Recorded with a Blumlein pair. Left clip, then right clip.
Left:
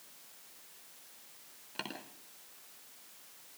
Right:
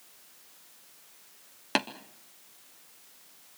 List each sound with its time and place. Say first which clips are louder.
1.8 s tapping: right 13 dB; 45° right, 3 m